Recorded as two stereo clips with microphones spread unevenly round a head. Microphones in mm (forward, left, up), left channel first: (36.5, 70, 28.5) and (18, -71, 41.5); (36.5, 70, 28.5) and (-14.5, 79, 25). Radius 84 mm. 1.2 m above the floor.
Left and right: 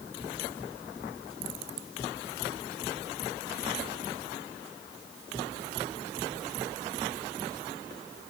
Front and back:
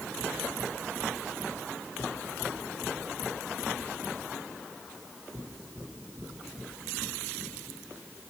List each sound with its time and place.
Only background noise.